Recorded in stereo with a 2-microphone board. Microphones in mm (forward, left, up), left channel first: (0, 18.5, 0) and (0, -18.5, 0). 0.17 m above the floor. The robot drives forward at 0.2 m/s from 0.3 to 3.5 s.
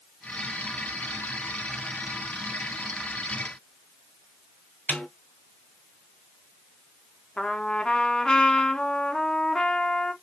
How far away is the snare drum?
About 2 m.